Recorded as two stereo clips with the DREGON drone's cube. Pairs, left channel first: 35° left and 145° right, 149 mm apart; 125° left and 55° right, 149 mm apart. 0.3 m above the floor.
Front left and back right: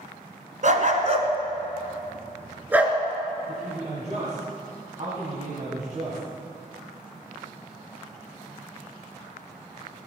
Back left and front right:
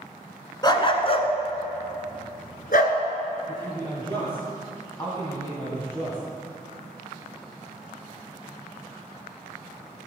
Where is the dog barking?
175° right, 1.2 m; by 3.0 s 130° left, 1.6 m.